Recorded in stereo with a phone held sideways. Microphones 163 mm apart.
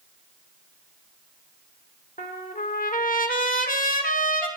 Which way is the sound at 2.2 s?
55° left (ahead or behind).